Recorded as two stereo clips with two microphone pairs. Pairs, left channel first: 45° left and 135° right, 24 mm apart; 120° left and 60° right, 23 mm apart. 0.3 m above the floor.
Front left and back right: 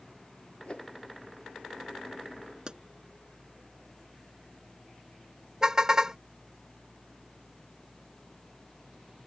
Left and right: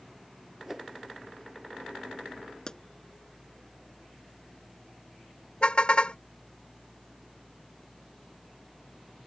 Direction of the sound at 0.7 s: 15° left.